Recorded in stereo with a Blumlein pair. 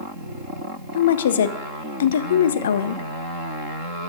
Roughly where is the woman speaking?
Ahead left.